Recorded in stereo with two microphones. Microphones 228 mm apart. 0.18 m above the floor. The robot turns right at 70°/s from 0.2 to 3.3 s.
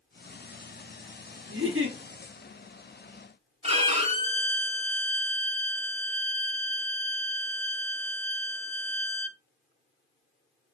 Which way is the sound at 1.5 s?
100° right.